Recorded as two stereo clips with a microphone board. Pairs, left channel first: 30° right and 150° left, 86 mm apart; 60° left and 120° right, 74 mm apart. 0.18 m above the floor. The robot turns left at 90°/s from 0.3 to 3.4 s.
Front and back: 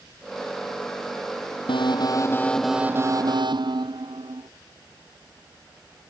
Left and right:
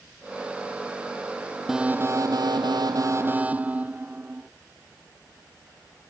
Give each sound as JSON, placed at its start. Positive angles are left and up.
{"t": 1.7, "sound": "an alarm", "azimuth_deg": -35}